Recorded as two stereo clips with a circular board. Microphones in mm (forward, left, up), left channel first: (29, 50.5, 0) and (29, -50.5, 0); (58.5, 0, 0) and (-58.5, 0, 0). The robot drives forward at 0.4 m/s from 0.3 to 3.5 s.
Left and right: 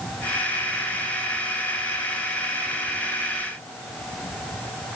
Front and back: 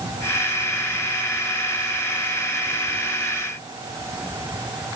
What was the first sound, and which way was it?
Only background noise.